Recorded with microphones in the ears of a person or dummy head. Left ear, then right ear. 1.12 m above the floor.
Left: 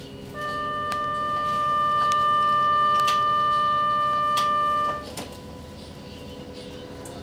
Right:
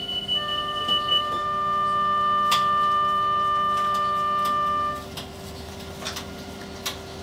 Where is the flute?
5° left (ahead or behind).